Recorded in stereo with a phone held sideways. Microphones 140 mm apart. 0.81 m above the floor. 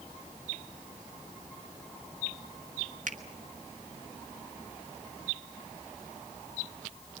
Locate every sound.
3.1 s a finger snap: 65° right (ahead or behind), 1.7 m